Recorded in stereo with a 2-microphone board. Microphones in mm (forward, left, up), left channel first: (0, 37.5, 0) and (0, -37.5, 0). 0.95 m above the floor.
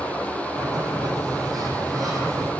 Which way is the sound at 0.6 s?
55° right (ahead or behind).